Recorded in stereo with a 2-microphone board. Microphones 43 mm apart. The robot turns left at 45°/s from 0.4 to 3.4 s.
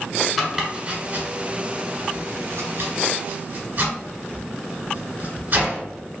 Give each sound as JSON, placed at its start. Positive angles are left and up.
{"t": 0.4, "sound": "chopping", "side_deg": -5, "distance_m": 1.2}